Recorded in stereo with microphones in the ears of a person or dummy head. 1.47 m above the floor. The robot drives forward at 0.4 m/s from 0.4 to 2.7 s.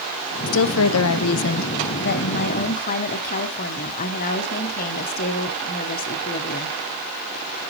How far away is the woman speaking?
About 0.7 m.